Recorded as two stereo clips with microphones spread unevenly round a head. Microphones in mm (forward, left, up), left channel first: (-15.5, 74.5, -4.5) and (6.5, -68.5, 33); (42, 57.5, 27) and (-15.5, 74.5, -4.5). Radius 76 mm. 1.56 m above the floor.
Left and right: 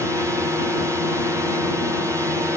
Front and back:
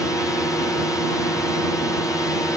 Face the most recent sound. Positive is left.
turn(degrees=-5)